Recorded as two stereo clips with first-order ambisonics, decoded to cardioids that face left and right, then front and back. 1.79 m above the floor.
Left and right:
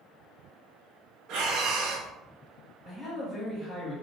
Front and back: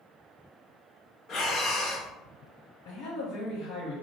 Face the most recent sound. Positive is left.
turn(degrees=-10)